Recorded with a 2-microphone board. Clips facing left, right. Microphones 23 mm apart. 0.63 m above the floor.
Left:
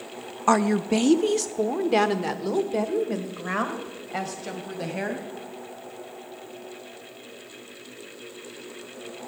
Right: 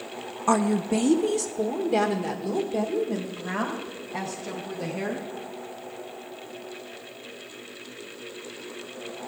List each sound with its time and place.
0.5 s a woman speaking: 30° left (ahead or behind), 0.6 m; by 5.3 s 60° left (ahead or behind), 3.5 m